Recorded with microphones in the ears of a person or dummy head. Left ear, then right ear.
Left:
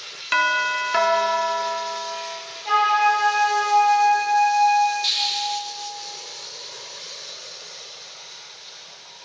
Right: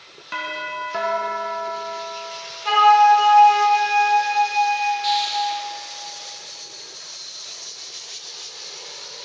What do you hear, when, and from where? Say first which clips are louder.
0.3 s a doorbell: left 8 dB; 45° left (ahead or behind), 1.1 m
2.6 s a flute: right 5 dB; 55° right (ahead or behind), 5 m
5.0 s a hiss: right 1 dB; 10° left (ahead or behind), 1.4 m